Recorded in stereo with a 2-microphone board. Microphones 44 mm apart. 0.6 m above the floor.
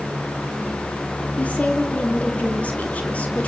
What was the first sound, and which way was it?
A woman speaking, 30° left (ahead or behind).